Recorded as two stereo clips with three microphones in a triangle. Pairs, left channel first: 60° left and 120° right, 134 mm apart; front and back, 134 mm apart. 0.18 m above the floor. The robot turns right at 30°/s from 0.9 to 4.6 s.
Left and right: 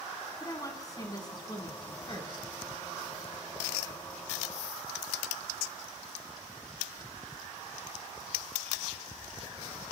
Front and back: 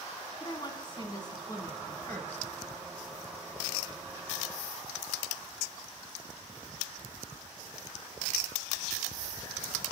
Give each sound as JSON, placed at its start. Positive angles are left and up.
{"t": 0.4, "sound": "a woman speaking", "azimuth_deg": 20, "distance_m": 1.4}